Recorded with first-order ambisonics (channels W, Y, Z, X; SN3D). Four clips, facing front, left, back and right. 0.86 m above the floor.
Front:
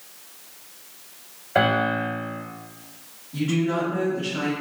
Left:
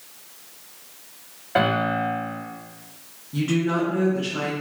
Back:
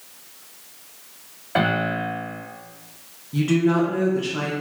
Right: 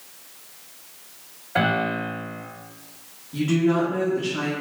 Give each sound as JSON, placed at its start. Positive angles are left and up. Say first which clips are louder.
{"t": 1.6, "sound": "a piano", "louder": "left 1 dB, front 1 dB", "azimuth_deg": 145, "distance_m": 1.4}
{"t": 3.3, "sound": "a woman speaking", "louder": "right 2 dB, back 4 dB", "azimuth_deg": 165, "distance_m": 0.5}